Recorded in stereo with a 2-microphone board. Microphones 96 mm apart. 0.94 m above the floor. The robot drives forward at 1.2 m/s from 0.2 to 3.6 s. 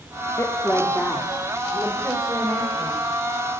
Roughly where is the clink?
No clink in this recording.